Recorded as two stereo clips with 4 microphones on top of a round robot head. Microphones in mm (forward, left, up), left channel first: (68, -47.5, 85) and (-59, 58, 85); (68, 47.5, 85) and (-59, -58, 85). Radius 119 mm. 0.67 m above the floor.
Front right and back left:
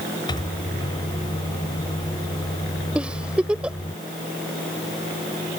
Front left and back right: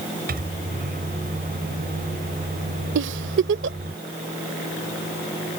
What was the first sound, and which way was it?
A microwave, 105° right.